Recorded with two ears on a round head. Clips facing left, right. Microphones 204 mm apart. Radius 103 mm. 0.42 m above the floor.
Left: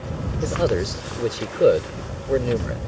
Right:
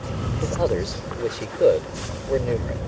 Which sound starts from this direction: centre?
A man speaking, at 0.4 s.